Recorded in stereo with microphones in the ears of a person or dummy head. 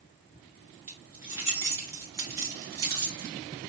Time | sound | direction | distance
0.9 | keys jangling | 15° right (ahead or behind) | 1.7 m